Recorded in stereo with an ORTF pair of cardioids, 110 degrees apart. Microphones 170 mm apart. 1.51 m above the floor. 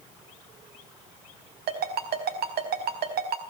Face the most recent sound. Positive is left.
turn(degrees=-70)